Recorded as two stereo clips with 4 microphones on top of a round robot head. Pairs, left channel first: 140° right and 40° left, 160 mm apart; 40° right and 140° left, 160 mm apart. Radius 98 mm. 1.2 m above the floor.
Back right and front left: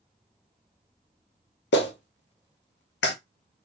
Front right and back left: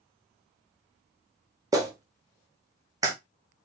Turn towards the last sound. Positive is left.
turn(degrees=-150)